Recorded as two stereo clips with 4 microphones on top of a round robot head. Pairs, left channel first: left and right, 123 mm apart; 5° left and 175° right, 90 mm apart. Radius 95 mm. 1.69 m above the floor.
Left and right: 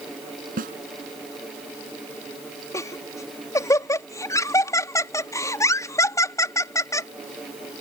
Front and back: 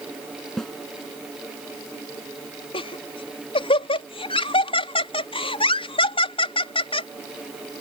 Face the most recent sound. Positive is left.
turn(degrees=25)